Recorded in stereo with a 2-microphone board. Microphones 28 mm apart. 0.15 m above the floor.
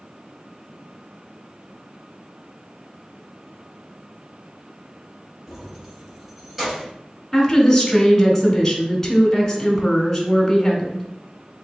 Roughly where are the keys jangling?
Centre.